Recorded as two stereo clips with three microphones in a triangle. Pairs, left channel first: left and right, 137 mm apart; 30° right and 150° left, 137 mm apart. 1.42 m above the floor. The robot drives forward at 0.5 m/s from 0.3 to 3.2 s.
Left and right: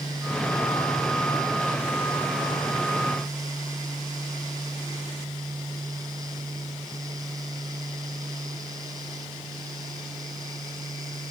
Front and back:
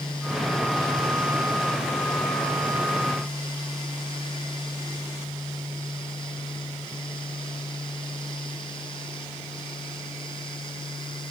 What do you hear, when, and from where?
Only background noise.